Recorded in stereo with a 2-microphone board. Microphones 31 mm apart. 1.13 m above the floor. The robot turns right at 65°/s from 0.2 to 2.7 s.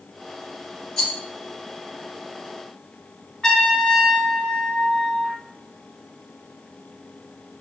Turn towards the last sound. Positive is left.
turn(degrees=15)  # may be behind; listen again after turning